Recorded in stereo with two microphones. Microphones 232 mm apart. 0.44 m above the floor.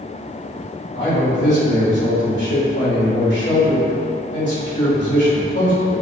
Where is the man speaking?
55° left (ahead or behind), 2.0 m.